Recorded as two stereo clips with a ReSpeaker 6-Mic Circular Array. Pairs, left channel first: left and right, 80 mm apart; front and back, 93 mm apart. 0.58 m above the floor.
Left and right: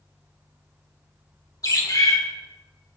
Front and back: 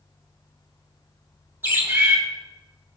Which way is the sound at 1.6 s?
115° left.